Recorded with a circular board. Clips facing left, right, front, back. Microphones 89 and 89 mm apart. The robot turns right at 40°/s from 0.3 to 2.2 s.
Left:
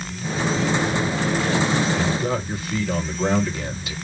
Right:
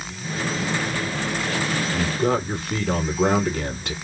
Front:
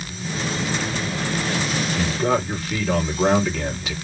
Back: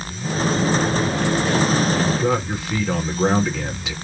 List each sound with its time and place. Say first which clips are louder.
1.9 s a man speaking: right 1 dB, back 2 dB; 100° right, 3.5 m; by 3.9 s 90° right, 3.5 m